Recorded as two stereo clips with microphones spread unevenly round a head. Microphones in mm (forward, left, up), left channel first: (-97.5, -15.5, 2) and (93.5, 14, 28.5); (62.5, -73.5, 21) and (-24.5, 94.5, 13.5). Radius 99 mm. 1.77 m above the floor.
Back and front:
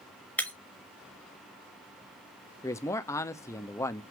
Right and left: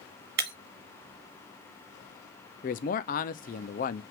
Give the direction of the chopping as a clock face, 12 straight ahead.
I don't hear chopping.